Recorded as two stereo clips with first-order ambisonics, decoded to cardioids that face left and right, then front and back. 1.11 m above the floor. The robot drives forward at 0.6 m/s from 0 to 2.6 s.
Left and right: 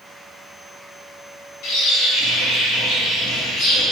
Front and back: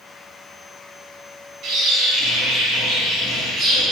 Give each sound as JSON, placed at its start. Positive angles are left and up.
{"t": 1.6, "sound": "a bird", "azimuth_deg": 125, "distance_m": 3.0}